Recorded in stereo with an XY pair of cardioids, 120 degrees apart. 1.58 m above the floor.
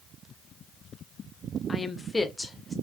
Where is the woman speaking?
25° left, 0.5 m; by 2.7 s straight ahead, 1.0 m.